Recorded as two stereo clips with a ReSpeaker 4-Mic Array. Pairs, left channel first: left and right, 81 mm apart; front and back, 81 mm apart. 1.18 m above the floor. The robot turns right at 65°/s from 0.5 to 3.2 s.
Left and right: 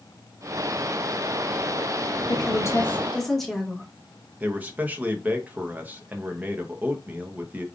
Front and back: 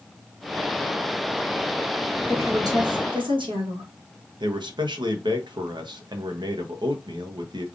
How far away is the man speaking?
About 0.7 m.